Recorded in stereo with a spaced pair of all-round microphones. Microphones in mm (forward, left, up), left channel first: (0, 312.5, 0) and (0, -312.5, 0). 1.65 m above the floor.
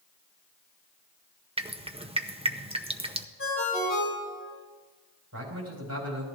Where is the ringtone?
20° left (ahead or behind), 6 m.